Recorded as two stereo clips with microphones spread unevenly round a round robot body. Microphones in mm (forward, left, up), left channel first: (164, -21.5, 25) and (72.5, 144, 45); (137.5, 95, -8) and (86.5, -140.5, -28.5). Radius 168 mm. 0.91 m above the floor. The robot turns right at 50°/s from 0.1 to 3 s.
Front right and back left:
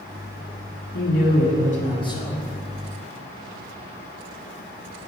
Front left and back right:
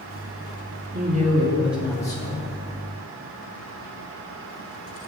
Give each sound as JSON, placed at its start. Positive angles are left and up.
{"t": 0.9, "sound": "a man speaking", "azimuth_deg": -55, "distance_m": 2.0}